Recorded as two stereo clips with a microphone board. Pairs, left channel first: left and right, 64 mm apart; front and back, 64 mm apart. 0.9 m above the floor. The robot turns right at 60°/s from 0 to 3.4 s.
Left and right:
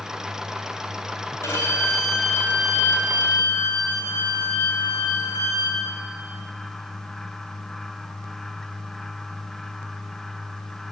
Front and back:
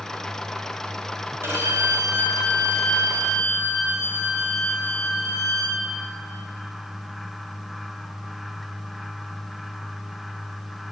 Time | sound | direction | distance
1.4 | a violin | 130° left | 4 m